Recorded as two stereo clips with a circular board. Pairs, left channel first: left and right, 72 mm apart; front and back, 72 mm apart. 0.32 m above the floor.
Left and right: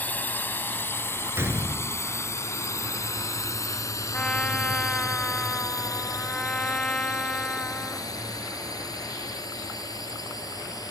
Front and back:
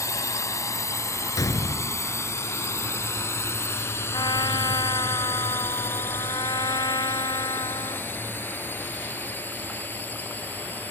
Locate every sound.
0.0 s a drone: 30° left; by 10.9 s 65° left
1.4 s a gunshot: 35° right
4.1 s a trumpet: 15° left